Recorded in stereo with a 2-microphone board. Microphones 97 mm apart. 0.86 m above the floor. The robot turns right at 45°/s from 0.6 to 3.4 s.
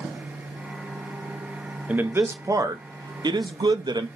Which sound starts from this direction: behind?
A man speaking, at 1.9 s.